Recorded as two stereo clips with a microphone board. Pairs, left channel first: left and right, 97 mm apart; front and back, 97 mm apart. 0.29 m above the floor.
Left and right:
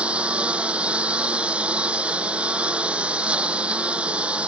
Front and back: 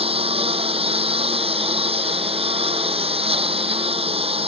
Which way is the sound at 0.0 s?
170° right.